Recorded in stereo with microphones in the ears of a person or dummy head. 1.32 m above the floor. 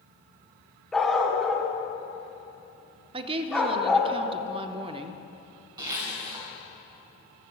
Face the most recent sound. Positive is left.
turn(degrees=-20)  # may be behind; listen again after turning